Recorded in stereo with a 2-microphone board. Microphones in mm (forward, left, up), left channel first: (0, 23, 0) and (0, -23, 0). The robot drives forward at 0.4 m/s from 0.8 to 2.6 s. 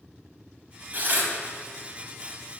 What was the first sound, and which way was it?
Tearing paper, 40° right (ahead or behind).